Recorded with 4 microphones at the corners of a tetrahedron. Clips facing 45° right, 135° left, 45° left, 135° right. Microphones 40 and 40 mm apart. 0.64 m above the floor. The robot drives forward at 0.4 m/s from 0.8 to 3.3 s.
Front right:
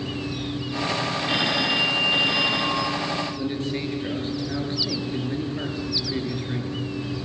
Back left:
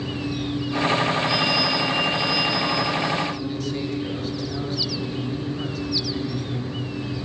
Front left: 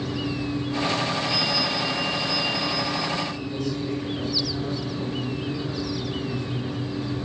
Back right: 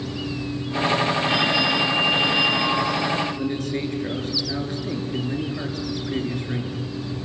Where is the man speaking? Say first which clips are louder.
Even, back right 3 dB; 100° right, 9 m.